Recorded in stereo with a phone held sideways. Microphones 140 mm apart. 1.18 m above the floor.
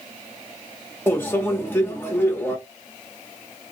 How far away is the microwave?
About 1.0 m.